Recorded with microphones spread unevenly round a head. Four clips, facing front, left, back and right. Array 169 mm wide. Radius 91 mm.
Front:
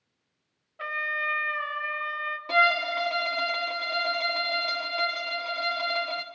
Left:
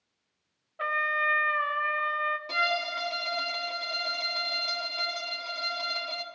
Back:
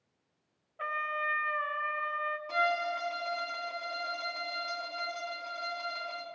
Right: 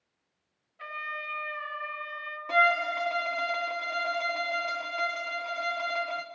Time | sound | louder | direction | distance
0.8 | a trumpet | left 9 dB, front 2 dB | 85° left | 1.2 m
2.5 | a violin | right 5 dB, front 7 dB | 10° right | 1.4 m